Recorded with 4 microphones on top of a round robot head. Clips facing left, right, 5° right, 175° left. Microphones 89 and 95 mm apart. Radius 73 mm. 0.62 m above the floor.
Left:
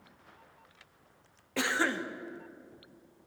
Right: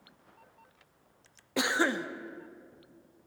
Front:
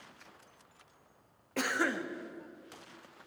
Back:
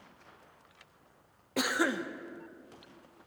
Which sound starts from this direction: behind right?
A cough, at 1.6 s.